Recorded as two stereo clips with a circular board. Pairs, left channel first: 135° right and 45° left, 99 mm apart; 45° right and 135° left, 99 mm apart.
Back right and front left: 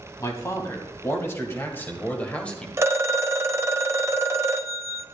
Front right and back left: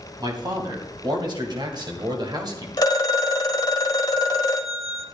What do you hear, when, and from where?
0.2 s a man speaking: 175° left, 3 m; by 2.7 s 150° left, 1.9 m
2.8 s a phone ringing: 5° right, 1.0 m